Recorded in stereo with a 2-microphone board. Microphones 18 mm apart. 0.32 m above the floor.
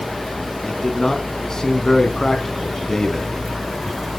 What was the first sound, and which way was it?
A man speaking, 30° left (ahead or behind).